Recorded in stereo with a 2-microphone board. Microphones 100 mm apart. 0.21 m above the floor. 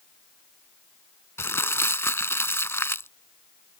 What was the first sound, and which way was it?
Crumpling, 25° left (ahead or behind).